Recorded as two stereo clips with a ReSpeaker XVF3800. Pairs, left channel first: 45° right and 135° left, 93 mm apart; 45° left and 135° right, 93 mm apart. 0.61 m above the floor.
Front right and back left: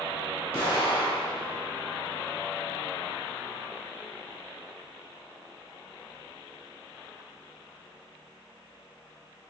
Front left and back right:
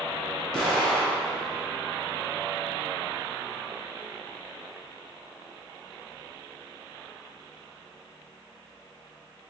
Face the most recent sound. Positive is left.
turn(degrees=-40)